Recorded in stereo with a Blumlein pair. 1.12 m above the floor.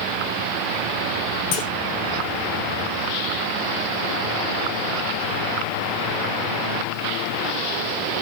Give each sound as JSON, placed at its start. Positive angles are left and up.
{"t": 1.5, "sound": "a clunk", "azimuth_deg": 45, "distance_m": 2.5}